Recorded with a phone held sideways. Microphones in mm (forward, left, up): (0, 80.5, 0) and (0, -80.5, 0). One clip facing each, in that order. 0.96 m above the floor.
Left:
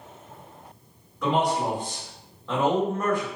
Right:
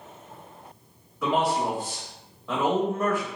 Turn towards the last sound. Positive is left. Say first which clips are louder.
# left 1 dB
turn(degrees=-5)  # may be behind; listen again after turning